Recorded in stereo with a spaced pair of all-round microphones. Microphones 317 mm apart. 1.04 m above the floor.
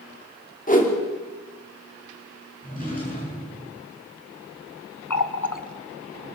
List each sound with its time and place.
0.7 s a whoosh: 25° left (ahead or behind), 2.5 m
2.6 s a drawer: 25° left (ahead or behind), 9 m
5.1 s a running tap: 75° left (ahead or behind), 1.1 m